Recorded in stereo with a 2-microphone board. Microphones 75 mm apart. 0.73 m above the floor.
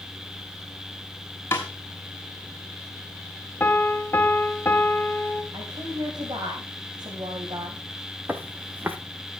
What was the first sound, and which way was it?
A snare drum, 30° left (ahead or behind).